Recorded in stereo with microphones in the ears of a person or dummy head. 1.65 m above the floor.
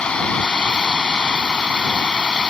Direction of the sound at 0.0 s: 5° left (ahead or behind).